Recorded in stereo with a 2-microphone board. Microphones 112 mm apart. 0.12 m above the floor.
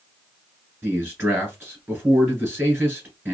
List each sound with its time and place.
0.8 s a man speaking: 15° right (ahead or behind), 1.4 m